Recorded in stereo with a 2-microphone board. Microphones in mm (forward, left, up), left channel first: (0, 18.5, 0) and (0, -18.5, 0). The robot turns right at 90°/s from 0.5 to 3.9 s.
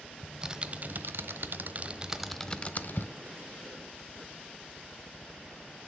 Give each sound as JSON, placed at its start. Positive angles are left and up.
{"t": 0.2, "sound": "typing on a keyboard", "side_deg": -20, "distance_m": 1.0}